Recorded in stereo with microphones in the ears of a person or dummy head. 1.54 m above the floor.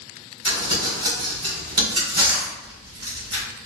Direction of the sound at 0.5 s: 25° right (ahead or behind).